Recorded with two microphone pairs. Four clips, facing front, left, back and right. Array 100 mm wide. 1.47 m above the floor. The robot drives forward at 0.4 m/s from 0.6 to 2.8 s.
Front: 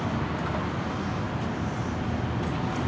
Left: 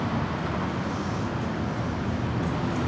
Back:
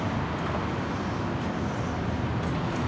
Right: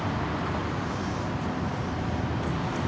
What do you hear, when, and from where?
0.0 s an insect: 70° left, 8 m; by 2.9 s 75° left, 7.5 m